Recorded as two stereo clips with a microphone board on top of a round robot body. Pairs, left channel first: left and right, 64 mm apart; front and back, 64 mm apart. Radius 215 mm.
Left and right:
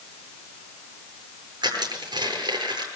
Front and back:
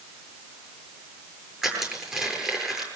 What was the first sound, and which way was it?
Crushing, 100° right.